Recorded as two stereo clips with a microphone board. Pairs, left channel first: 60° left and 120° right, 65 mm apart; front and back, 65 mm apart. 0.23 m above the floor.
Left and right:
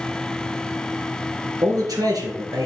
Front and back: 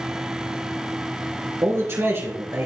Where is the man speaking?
130° right, 3.5 m.